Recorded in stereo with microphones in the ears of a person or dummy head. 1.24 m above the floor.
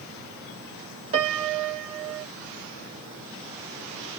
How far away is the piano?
About 0.8 m.